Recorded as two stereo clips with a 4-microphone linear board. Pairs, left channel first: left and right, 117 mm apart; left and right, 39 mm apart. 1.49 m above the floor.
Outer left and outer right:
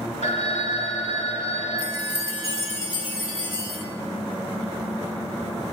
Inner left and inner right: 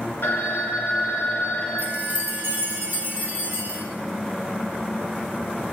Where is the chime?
55° right (ahead or behind), 2.5 m.